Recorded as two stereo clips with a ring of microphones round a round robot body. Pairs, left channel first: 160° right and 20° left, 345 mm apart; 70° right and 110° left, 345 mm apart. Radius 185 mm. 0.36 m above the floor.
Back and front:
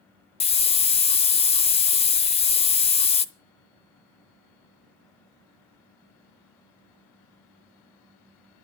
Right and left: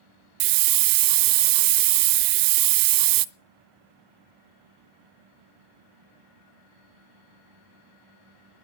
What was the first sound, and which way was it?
A hiss, 130° left.